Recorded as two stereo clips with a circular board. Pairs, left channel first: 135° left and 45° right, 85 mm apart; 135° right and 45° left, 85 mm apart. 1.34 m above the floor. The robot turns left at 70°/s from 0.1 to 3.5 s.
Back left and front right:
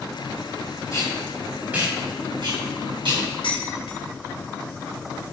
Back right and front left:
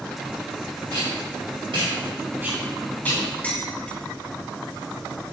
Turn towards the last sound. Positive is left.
turn(degrees=150)